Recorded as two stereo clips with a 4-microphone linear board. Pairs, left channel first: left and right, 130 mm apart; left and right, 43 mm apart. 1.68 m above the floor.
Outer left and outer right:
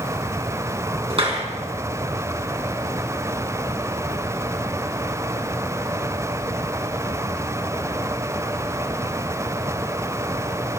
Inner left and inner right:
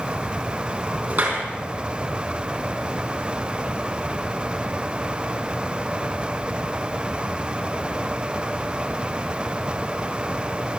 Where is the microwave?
I don't hear a microwave.